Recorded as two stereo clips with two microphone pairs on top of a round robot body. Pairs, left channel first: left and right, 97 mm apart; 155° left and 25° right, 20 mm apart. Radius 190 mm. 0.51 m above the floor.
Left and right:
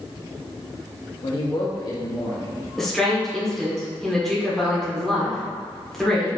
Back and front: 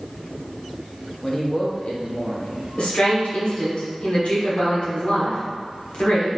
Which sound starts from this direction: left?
A man speaking, at 1.2 s.